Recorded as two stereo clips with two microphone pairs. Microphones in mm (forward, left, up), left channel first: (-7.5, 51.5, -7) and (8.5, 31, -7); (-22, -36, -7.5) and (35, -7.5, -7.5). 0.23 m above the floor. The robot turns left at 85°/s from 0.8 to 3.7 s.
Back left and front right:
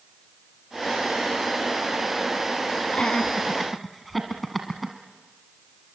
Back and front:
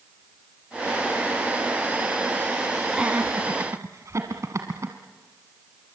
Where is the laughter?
105° left, 1.8 m; by 5.0 s 40° left, 1.8 m.